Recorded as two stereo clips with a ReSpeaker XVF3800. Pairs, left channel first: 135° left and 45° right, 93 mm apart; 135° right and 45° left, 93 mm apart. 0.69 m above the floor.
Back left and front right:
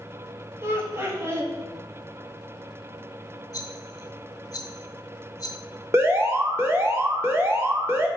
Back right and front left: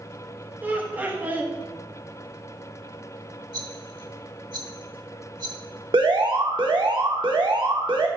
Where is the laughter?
10° right, 1.3 m.